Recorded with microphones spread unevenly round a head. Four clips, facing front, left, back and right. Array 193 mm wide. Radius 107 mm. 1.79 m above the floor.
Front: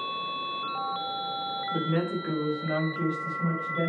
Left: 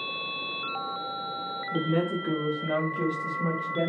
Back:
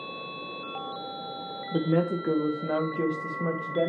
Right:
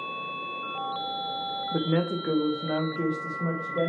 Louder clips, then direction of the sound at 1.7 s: Even, back 4 dB; 145° right.